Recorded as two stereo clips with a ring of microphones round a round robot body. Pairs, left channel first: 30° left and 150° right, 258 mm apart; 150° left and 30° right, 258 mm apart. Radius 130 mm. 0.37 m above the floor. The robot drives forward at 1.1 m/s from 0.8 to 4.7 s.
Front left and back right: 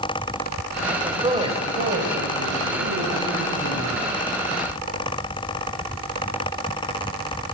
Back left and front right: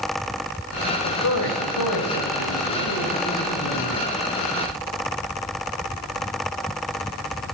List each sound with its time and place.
1.0 s a man speaking: 130° left, 1.6 m; by 4.1 s 170° left, 4.5 m